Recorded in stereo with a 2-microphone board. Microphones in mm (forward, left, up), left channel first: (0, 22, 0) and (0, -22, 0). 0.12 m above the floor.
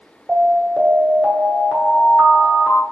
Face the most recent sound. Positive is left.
turn(degrees=-35)  # may be behind; listen again after turning